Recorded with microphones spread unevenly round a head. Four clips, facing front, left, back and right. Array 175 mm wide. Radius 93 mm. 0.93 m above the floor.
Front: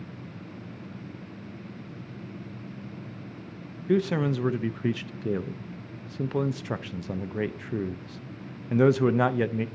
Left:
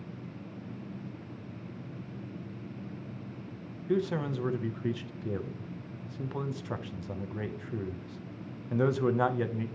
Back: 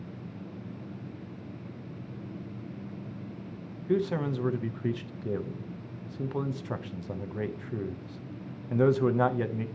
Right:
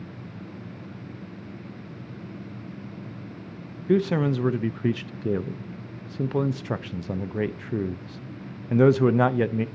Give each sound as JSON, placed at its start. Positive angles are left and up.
{"t": 3.9, "sound": "a man speaking", "azimuth_deg": -50, "distance_m": 0.5}